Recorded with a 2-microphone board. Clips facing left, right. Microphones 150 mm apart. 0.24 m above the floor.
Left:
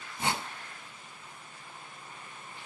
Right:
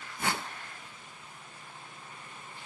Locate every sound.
0.2 s a whoosh: 25° left (ahead or behind), 0.6 m